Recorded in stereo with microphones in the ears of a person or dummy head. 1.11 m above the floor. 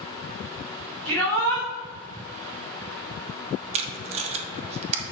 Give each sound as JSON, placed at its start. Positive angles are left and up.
{"t": 1.1, "sound": "a shout", "side_deg": -70, "distance_m": 2.5}
{"t": 3.7, "sound": "tape being pulled", "side_deg": -35, "distance_m": 0.8}